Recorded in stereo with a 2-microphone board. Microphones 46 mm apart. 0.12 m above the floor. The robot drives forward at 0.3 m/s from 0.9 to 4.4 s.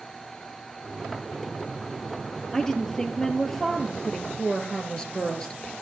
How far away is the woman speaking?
About 2.5 m.